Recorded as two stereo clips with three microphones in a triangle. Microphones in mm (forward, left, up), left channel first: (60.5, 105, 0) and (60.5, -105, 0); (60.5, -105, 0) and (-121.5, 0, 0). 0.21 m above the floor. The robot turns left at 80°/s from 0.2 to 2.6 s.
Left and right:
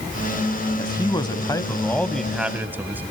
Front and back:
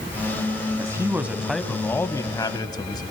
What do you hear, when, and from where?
0.8 s a man speaking: 120° left, 1.0 m; by 3.0 s 25° right, 1.0 m